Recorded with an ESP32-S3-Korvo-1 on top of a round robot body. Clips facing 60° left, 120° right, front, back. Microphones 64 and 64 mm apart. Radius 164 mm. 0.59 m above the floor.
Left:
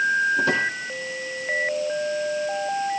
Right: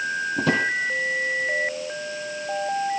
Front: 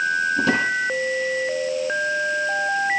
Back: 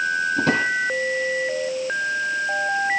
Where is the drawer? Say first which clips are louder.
Left 1 dB, back 1 dB; 140° right, 5.5 m.